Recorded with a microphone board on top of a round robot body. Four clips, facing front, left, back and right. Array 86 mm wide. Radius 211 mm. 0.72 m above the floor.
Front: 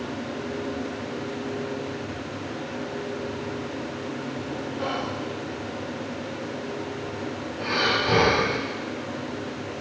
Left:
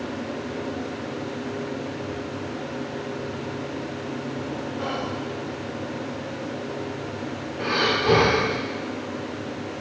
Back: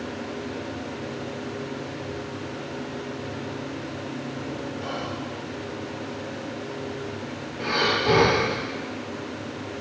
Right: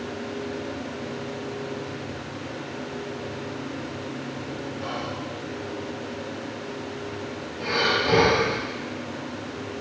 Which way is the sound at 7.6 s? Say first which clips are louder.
Left 1 dB, back 1 dB; 115° left.